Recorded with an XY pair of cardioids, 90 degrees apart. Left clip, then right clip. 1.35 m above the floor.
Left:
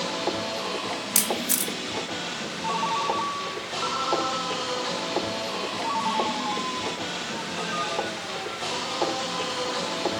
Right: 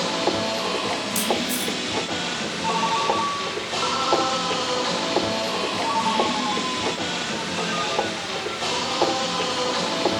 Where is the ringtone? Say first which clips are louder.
Right 4 dB; 15° right, 2 m.